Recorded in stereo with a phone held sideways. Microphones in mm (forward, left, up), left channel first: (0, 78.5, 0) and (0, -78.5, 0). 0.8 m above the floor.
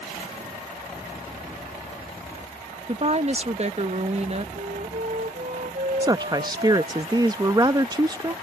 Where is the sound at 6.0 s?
25° right (ahead or behind).